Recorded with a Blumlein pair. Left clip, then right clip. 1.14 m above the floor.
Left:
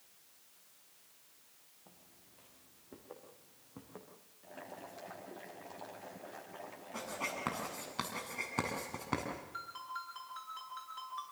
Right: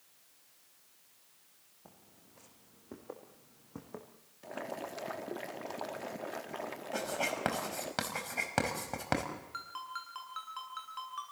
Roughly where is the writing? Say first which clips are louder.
Right 5 dB; ahead right.